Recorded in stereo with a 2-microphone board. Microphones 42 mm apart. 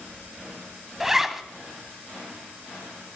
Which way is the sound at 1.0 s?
10° right (ahead or behind).